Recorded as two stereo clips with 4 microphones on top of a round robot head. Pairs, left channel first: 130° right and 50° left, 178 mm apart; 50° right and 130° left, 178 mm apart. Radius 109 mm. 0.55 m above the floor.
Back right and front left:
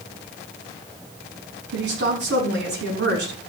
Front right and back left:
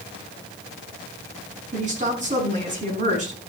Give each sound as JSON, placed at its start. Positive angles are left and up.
{"t": 1.7, "sound": "a woman speaking", "azimuth_deg": 80, "distance_m": 5.0}